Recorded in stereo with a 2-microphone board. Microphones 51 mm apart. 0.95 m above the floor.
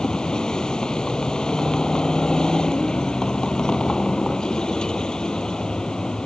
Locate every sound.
0.0 s a vehicle: 15° left (ahead or behind)